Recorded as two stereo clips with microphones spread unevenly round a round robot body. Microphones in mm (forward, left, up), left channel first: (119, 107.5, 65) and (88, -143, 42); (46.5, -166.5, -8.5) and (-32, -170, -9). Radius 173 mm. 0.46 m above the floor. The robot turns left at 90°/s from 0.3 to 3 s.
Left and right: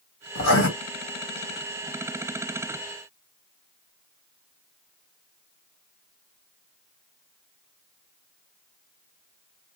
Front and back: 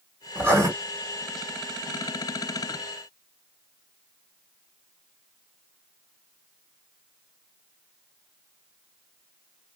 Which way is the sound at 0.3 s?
110° left.